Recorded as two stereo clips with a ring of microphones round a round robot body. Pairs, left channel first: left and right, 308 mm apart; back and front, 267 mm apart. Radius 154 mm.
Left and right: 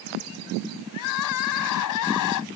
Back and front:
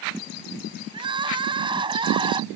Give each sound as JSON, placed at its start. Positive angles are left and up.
{"t": 0.9, "sound": "crying", "azimuth_deg": 70}